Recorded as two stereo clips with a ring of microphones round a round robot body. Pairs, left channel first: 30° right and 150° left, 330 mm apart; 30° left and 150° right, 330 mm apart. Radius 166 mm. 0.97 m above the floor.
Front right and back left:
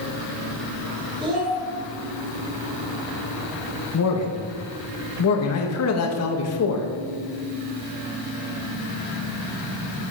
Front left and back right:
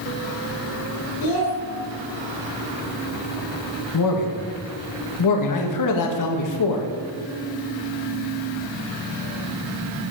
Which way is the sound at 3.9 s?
10° left.